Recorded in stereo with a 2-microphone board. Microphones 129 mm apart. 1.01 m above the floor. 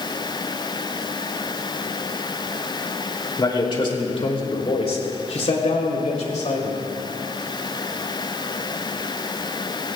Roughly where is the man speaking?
Left.